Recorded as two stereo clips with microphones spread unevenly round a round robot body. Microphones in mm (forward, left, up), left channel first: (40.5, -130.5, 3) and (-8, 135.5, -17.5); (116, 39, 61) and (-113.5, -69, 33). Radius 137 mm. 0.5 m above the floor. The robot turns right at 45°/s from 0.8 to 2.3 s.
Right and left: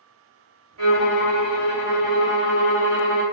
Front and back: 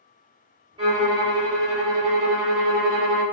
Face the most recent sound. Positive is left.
turn(degrees=-155)